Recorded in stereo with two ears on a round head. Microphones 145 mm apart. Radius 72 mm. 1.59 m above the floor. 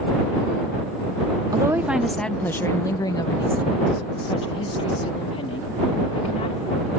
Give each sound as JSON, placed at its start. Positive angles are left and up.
{"t": 1.5, "sound": "a woman speaking", "side_deg": -25}